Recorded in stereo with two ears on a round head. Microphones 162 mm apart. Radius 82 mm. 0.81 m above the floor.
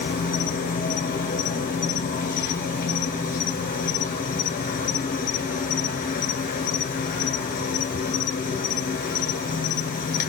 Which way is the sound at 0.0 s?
50° left (ahead or behind).